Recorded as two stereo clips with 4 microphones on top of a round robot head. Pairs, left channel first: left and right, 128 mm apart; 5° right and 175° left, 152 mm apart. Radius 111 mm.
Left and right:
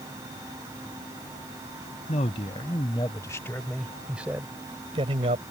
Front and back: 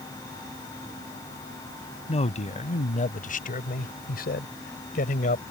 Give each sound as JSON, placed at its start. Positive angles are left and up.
{"t": 2.1, "sound": "a man speaking", "azimuth_deg": 40}